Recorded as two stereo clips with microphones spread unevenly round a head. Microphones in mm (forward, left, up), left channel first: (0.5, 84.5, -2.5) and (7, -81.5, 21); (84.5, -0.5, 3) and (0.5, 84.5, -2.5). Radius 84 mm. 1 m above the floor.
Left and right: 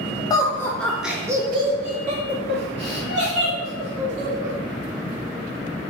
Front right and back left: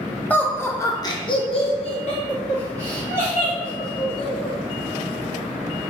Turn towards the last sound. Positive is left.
turn(degrees=-95)